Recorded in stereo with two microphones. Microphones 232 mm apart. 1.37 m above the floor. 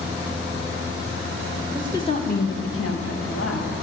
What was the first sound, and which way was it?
A woman speaking, centre (ahead or behind).